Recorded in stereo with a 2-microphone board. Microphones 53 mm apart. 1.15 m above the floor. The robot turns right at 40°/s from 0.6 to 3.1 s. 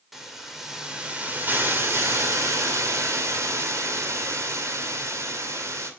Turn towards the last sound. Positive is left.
turn(degrees=-75)